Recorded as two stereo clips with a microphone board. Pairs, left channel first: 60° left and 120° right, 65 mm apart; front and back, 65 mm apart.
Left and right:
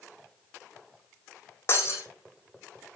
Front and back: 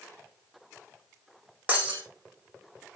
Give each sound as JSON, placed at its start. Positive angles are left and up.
{"t": 1.7, "sound": "breaking glass", "azimuth_deg": 115, "distance_m": 4.0}